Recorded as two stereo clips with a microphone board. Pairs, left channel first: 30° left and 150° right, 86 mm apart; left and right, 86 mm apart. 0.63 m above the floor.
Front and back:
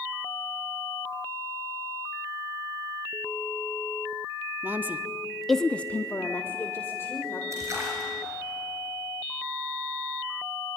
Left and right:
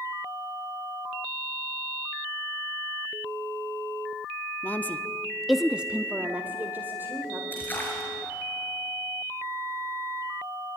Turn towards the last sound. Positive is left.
turn(degrees=155)